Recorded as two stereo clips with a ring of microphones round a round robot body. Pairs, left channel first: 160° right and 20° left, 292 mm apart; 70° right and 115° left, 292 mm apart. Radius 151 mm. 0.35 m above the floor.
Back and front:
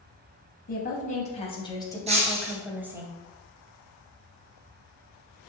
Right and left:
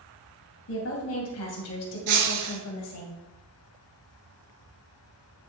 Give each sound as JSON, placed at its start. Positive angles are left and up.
{"t": 0.7, "sound": "a woman speaking", "azimuth_deg": -100, "distance_m": 3.0}
{"t": 2.1, "sound": "breaking glass", "azimuth_deg": 90, "distance_m": 2.5}